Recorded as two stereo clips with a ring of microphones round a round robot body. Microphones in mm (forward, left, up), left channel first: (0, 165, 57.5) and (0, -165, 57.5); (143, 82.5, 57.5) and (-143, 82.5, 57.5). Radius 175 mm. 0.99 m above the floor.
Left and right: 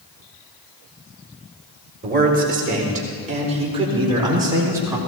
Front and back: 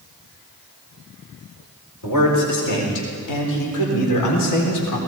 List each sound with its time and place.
2.0 s a man speaking: 30° right, 4.5 m; by 5.0 s 10° right, 4 m